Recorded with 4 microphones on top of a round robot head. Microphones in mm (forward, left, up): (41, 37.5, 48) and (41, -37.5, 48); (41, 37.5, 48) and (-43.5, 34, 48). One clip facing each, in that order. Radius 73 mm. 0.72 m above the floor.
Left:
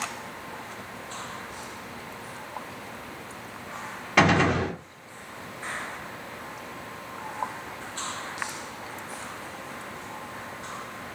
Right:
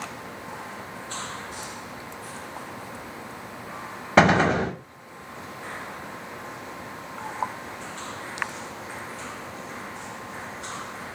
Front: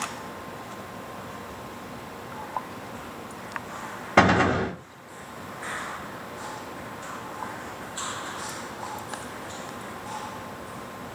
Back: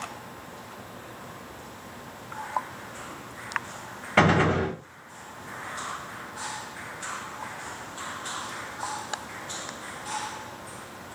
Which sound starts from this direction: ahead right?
A gunshot, at 4.2 s.